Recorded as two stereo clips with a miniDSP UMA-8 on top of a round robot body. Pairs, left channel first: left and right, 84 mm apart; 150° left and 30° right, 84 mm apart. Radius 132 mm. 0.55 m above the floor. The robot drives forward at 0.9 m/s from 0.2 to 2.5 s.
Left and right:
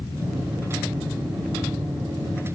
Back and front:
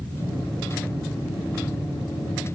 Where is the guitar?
No guitar in this recording.